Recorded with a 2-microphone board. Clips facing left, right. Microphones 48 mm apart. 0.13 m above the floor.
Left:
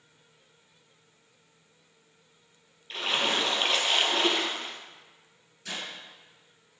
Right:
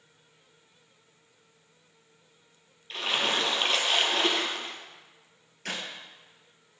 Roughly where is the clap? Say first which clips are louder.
Right 2 dB; right.